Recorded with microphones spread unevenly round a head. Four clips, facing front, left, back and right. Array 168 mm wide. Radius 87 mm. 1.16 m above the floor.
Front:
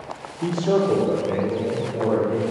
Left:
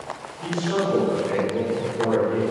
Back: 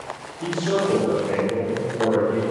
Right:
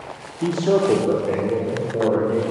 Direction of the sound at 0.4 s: 70° right.